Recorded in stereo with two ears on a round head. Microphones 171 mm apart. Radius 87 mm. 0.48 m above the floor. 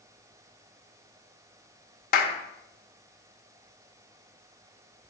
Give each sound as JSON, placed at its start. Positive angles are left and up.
{"t": 2.1, "sound": "a clap", "side_deg": 50, "distance_m": 1.0}